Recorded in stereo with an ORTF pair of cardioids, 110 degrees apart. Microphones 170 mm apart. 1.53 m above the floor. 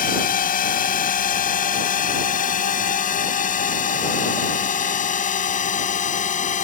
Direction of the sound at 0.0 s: 50° left.